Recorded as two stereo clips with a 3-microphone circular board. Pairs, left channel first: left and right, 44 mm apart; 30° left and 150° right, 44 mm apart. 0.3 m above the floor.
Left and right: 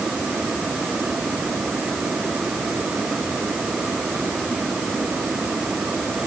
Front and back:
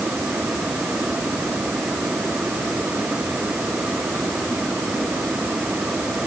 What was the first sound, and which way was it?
Only background noise.